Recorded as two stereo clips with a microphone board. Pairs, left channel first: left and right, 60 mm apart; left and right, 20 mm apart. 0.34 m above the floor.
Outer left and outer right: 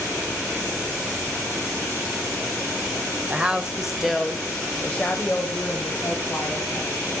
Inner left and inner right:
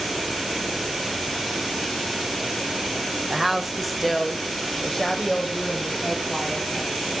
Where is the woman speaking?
20° right (ahead or behind), 1.1 m; by 7.1 s 30° left (ahead or behind), 2.5 m.